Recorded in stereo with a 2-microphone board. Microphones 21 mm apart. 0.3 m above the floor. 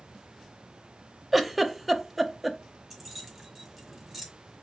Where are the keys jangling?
Centre (ahead or behind), 1.4 m.